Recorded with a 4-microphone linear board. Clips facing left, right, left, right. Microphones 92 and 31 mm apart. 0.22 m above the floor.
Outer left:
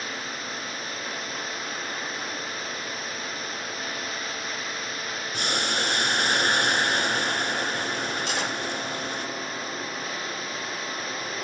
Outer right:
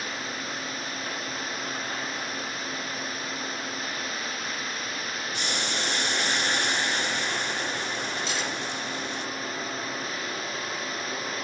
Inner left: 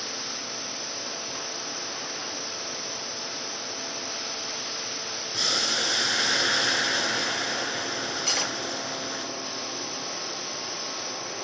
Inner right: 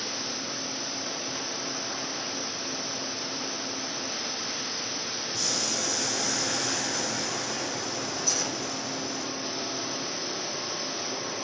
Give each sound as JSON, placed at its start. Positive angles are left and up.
{"t": 5.3, "sound": "boiling", "side_deg": 55, "distance_m": 1.8}
{"t": 8.3, "sound": "cutlery clinking", "side_deg": 60, "distance_m": 2.5}